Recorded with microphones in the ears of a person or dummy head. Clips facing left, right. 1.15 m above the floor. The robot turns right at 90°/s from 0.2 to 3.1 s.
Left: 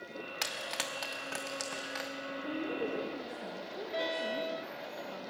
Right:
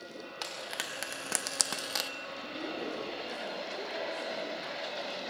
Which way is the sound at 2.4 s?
75° left.